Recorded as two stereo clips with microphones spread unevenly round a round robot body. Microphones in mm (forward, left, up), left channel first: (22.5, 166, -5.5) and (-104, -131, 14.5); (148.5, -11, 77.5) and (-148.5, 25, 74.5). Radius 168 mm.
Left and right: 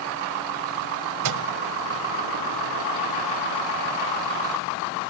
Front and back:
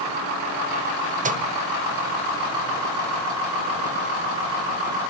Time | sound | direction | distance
1.2 | a microwave | 130° right | 1.8 m